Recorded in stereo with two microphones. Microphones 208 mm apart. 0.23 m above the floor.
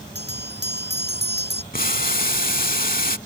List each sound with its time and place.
0.1 s a bell: 55° right (ahead or behind)
1.7 s boiling: 45° left (ahead or behind)